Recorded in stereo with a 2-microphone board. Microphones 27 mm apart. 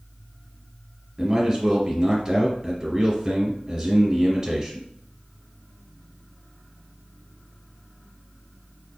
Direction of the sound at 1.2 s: 15° right (ahead or behind).